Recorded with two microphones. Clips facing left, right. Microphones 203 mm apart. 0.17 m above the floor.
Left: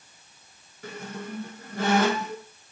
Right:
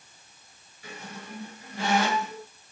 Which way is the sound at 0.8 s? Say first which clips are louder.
Left 6 dB; 50° left (ahead or behind).